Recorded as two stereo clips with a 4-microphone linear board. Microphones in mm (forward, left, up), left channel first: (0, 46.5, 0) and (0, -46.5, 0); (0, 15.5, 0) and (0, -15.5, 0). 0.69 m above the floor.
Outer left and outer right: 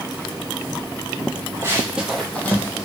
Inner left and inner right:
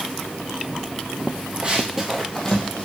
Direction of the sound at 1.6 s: 30° right (ahead or behind).